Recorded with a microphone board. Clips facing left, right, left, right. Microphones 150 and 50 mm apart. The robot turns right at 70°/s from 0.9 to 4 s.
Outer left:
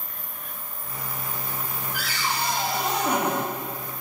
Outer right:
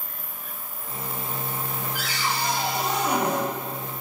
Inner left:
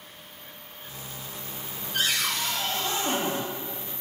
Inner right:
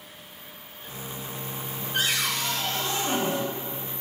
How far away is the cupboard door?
About 0.8 m.